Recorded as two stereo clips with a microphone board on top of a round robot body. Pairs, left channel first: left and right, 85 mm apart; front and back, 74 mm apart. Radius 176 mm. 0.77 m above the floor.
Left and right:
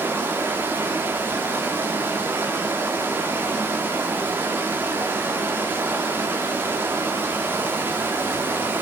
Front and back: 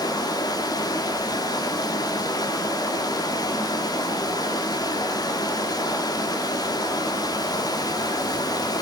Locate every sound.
0.0 s running water: 25° right, 1.2 m